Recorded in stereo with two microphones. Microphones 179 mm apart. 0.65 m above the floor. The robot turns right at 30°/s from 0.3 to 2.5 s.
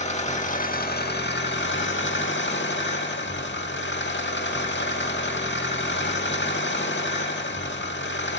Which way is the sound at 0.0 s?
40° left.